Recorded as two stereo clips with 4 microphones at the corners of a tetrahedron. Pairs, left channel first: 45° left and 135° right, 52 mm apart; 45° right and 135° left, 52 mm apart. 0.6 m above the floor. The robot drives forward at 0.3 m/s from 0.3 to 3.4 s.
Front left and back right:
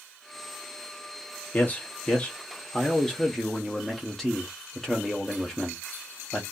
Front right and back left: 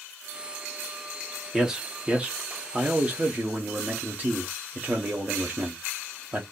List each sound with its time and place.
1.5 s a man speaking: 60° left, 0.9 m; by 6.4 s 125° left, 0.9 m